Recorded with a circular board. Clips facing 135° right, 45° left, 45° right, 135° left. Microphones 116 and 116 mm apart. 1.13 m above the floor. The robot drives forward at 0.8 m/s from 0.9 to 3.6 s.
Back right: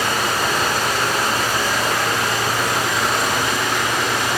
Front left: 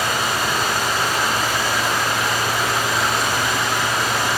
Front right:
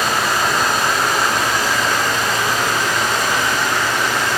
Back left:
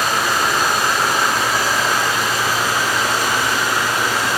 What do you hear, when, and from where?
0.0 s running water: 135° right, 7.5 m; by 4.4 s 145° right, 9 m